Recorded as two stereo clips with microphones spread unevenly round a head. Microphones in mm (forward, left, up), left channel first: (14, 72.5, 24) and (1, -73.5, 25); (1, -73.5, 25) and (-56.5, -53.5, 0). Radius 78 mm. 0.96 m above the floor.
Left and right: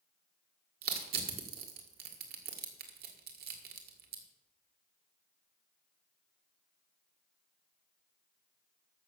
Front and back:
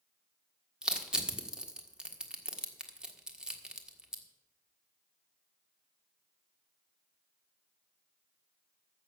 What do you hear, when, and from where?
0.8 s crushing: 125° right, 1.8 m